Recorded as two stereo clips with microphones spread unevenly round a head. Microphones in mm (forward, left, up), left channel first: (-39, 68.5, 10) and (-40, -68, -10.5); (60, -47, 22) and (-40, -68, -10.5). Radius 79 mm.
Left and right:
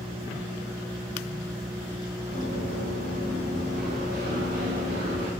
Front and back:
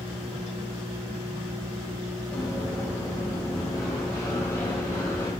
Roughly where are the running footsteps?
Ahead right.